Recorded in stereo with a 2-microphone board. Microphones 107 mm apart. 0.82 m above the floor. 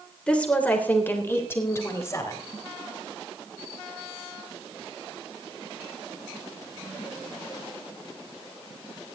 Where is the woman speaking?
10° left (ahead or behind), 3 m; by 2.4 s 30° left (ahead or behind), 4 m.